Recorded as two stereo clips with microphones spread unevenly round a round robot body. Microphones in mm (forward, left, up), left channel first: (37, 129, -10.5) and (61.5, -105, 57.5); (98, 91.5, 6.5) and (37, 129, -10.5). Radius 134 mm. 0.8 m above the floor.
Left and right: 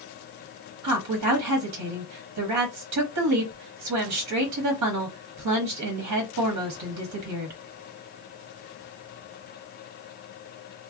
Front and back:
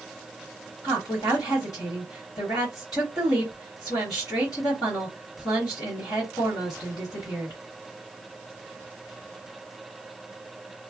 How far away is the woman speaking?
About 1.0 m.